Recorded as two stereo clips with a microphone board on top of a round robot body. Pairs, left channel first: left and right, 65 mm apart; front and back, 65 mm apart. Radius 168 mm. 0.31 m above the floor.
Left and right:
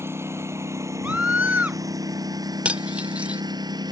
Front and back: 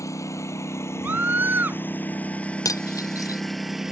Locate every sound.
0.0 s a lawn mower: 40° right; by 3.9 s 95° right
1.0 s a scream: 140° right
2.6 s cutlery clinking: 20° right